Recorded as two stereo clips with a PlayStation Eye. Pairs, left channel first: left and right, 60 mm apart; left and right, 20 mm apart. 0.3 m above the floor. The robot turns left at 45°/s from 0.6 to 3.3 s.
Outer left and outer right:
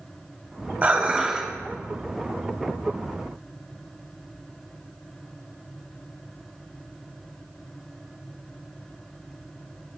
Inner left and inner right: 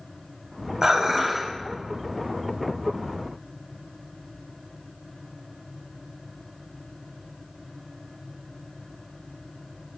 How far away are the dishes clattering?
About 1.1 m.